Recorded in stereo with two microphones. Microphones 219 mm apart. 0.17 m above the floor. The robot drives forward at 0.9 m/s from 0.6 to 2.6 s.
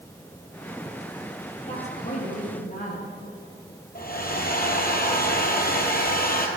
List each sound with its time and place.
1.7 s a woman speaking: 35° left (ahead or behind), 4 m; by 3.1 s 40° left (ahead or behind), 3 m
4.0 s a hair dryer: 45° left (ahead or behind), 1.9 m